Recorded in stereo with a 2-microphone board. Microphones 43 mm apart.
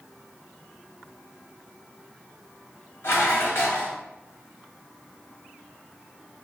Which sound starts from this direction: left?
Dishes clattering, at 3.0 s.